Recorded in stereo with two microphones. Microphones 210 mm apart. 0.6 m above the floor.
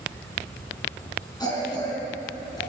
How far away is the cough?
About 6 m.